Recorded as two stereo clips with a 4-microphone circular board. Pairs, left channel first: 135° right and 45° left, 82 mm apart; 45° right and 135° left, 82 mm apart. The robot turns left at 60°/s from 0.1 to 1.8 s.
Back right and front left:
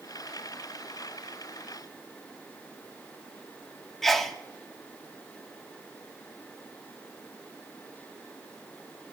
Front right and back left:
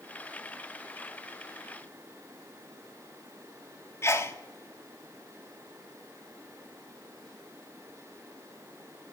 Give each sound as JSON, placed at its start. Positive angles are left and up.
{"t": 4.0, "sound": "a sneeze", "azimuth_deg": -50, "distance_m": 0.7}